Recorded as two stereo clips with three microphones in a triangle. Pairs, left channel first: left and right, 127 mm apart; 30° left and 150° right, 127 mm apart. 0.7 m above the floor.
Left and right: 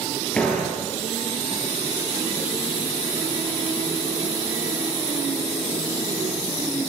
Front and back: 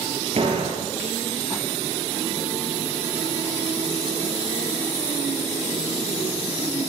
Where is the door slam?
175° left, 9.5 m.